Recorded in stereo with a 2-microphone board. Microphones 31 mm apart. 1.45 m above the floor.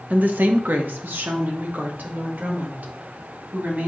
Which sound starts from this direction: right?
A woman speaking, at 0.1 s.